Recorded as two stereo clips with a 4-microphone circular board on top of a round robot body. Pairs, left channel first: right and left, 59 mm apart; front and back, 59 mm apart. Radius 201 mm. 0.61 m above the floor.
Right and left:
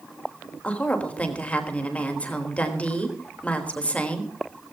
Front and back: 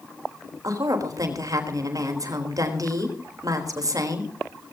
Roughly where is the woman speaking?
Behind right.